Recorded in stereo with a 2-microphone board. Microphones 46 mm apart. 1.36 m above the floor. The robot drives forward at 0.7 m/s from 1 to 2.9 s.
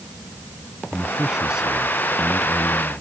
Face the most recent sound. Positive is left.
turn(degrees=-15)  # may be behind; listen again after turning